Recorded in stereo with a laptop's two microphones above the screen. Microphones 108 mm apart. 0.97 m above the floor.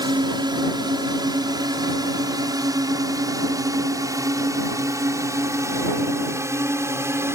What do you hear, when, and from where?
0.0 s a drone: 45° right (ahead or behind); by 7.3 s 25° right (ahead or behind)